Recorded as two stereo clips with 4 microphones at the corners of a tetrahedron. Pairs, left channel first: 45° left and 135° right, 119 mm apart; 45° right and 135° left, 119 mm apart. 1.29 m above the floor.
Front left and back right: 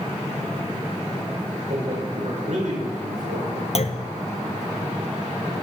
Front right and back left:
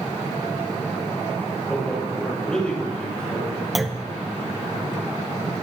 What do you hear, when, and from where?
1.7 s a man speaking: 125° right, 6 m
3.8 s a clunk: 45° left, 0.6 m